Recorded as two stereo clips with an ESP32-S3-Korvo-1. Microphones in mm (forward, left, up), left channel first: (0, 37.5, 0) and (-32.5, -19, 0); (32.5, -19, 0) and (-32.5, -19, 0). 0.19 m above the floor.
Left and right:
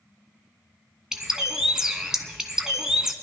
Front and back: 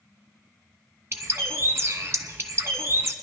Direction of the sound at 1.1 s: 165° left.